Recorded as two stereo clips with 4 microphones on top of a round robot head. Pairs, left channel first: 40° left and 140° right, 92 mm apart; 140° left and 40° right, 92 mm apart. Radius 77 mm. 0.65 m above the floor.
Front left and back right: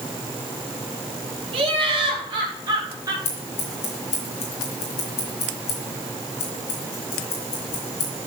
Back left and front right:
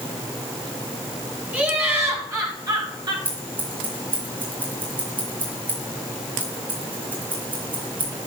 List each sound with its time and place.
1.5 s laughter: 110° right, 4.5 m; by 3.1 s 85° right, 4 m
3.2 s scissors: 30° left, 3.5 m